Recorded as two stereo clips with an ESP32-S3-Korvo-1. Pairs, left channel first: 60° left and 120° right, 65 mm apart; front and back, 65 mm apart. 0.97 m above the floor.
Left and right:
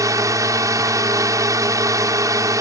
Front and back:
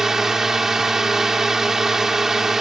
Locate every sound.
0.0 s a drone: 95° right